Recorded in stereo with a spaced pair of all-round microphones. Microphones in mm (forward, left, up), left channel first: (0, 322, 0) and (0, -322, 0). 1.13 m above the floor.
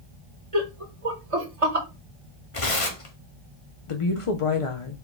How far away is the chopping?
No chopping in this recording.